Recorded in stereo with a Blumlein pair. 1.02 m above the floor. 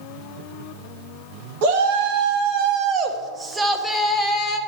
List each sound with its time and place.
1.6 s a shout: 50° right, 1.5 m; by 4.6 s 25° left, 1.0 m